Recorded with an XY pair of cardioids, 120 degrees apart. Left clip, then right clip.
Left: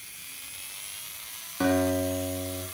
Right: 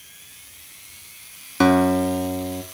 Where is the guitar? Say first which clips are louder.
Right 8 dB; 65° right, 3 m.